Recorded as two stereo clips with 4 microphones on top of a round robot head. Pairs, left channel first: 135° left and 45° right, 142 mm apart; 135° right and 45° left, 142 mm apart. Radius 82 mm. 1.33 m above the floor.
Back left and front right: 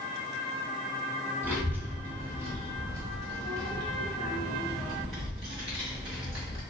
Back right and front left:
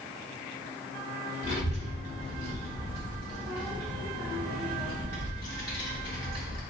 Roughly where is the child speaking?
Behind right.